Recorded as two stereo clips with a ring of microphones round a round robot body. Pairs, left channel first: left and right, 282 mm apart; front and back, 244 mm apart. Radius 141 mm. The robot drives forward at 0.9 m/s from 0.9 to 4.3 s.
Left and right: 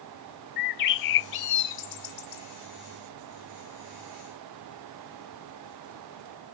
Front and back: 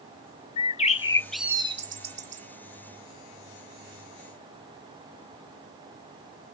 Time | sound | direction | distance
0.6 | a bird | 65° left | ?